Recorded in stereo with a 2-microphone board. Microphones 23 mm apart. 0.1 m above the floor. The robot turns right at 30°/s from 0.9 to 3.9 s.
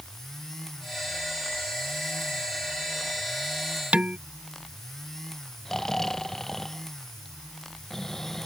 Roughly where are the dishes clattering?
Right.